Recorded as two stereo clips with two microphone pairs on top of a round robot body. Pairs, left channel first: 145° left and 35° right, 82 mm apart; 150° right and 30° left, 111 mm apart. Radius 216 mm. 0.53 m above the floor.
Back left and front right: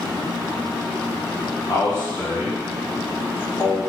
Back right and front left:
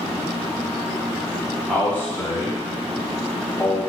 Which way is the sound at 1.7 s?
125° left.